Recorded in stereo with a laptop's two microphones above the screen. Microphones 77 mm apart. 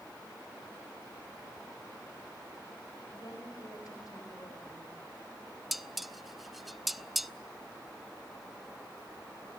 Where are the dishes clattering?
Centre (ahead or behind), 0.6 m.